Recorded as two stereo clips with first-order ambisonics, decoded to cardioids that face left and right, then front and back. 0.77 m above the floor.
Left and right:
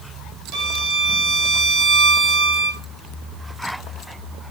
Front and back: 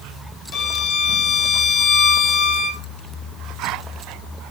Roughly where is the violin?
Ahead right.